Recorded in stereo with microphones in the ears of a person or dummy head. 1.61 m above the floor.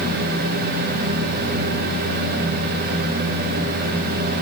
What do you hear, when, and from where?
Only background noise.